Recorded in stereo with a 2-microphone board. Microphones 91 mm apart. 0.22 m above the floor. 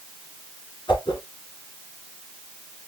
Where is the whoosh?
60° left (ahead or behind), 1.8 m.